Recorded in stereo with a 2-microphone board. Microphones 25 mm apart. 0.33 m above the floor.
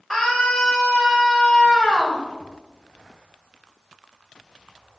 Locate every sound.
0.1 s a scream: centre (ahead or behind), 1.8 m; by 2.2 s 30° left (ahead or behind), 1.5 m